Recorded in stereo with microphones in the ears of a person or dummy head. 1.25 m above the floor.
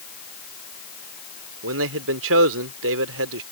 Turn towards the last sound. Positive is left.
turn(degrees=-70)  # may be behind; listen again after turning